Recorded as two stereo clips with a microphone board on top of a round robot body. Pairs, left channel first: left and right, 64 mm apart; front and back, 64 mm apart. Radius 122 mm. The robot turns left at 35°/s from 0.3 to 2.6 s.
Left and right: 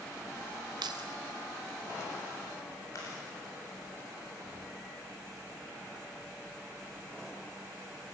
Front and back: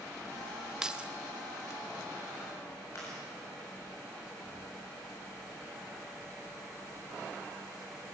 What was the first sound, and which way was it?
Keys jangling, 100° right.